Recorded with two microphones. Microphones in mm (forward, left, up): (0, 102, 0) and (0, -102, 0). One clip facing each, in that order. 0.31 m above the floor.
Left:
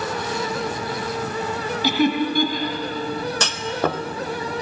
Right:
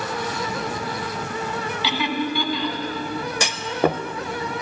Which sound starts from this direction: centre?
A clunk, at 3.4 s.